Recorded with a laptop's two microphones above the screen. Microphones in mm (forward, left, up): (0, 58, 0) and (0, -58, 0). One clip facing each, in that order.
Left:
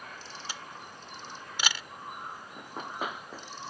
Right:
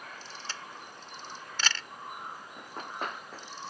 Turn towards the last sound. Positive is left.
turn(degrees=5)  # may be behind; listen again after turning